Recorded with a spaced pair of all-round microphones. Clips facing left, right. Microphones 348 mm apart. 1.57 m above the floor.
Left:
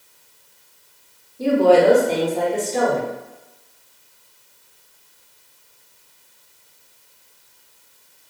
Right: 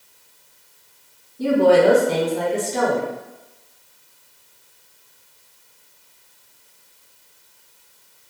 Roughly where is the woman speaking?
Right.